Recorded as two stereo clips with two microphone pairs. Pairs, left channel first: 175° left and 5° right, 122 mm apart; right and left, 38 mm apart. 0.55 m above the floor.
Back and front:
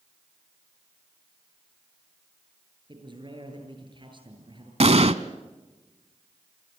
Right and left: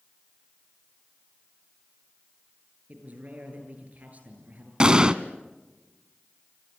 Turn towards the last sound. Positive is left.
turn(degrees=20)